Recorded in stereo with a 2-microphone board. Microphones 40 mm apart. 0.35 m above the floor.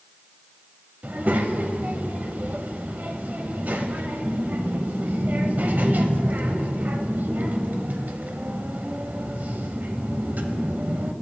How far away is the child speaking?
About 0.9 m.